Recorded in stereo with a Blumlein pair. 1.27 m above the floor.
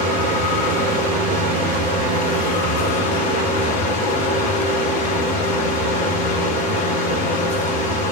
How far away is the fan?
About 1.2 m.